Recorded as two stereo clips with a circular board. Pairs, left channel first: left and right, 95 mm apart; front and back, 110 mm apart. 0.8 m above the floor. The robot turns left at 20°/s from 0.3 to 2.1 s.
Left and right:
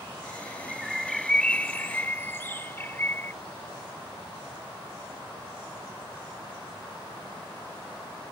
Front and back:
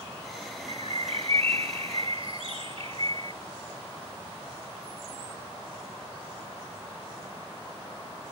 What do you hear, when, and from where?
0.7 s a bird: 175° right; by 3.3 s 155° left